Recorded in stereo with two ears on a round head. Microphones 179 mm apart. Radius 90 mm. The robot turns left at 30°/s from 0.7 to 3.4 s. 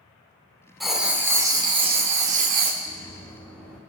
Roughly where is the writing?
Ahead.